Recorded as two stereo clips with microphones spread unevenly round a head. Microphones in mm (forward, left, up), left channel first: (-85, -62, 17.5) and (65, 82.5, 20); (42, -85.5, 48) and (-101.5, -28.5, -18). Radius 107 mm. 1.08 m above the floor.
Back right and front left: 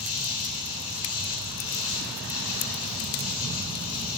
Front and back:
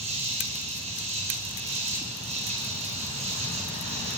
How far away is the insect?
About 4.5 m.